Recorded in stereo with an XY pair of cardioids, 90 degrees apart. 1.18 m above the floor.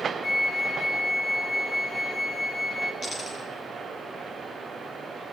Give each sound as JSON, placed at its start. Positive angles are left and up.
{"t": 0.2, "sound": "a flute", "azimuth_deg": 40, "distance_m": 0.7}
{"t": 3.0, "sound": "a dropped coin", "azimuth_deg": 30, "distance_m": 4.5}